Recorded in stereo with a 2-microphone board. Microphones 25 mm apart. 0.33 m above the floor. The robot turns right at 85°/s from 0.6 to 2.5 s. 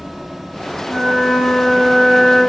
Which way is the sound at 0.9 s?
90° right.